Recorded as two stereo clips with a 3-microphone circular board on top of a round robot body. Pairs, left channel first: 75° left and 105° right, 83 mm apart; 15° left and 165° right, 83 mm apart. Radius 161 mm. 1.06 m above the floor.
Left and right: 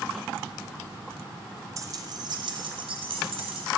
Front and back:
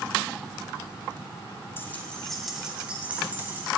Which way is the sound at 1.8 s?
50° right.